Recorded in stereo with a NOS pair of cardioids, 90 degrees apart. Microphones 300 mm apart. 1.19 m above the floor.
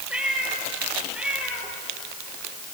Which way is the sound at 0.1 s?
5° right.